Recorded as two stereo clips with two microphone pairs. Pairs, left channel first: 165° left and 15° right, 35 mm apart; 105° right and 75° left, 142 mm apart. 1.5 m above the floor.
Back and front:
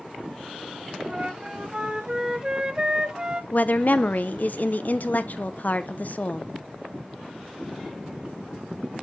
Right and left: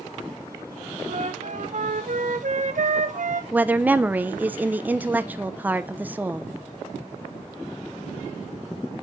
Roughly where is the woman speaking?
Behind left.